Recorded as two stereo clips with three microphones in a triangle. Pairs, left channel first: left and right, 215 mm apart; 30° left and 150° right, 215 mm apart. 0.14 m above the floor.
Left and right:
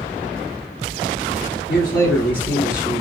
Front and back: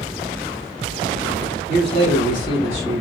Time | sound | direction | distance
1.7 | a man speaking | 50° left | 1.3 m